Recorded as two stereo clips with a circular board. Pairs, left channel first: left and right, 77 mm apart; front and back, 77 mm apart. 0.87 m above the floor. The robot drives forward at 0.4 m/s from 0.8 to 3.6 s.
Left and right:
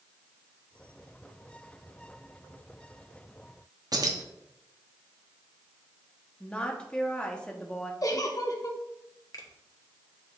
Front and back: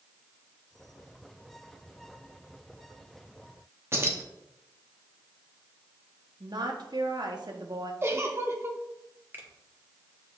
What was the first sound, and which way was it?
Keys jangling, 125° right.